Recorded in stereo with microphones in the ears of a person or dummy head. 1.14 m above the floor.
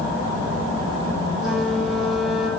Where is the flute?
5° right (ahead or behind), 2.5 m.